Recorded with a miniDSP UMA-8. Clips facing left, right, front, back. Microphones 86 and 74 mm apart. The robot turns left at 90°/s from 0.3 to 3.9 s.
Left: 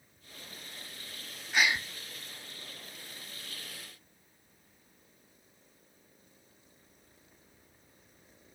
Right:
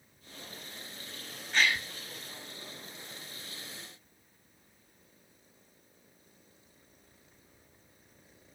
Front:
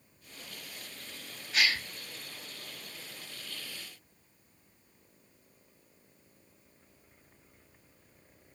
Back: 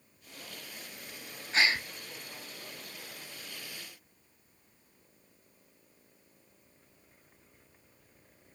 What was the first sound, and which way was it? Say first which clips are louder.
A gasp: even, back 2 dB; 165° left.